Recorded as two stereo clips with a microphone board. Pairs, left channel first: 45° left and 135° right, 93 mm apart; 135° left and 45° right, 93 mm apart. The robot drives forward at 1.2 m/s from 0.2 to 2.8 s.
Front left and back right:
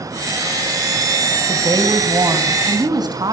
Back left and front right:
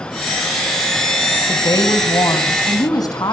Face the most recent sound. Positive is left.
turn(degrees=180)